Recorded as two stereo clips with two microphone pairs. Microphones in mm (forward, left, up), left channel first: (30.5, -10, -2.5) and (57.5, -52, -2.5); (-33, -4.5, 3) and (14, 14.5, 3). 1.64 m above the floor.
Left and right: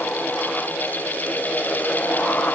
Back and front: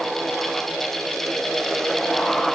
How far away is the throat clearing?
No throat clearing in this recording.